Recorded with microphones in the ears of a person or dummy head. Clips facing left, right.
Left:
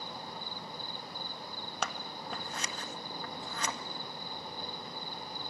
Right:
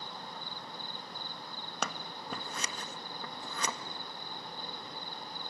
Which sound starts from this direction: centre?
An insect, at 0.0 s.